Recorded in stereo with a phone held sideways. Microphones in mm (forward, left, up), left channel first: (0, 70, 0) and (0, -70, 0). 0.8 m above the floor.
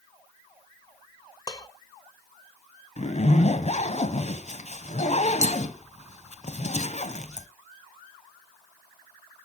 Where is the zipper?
50° left (ahead or behind), 1.1 m.